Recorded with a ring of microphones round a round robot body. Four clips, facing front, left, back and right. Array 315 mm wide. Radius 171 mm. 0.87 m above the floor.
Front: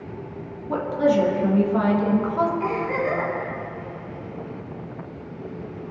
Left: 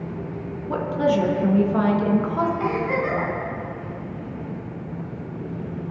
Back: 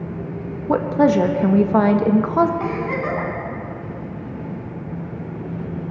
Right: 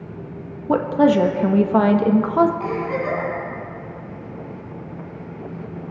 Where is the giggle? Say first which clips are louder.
Even, back 1 dB; 170° left, 3.5 m.